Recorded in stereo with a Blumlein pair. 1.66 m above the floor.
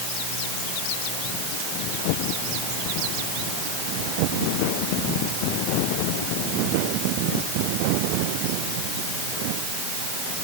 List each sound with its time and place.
Only background noise.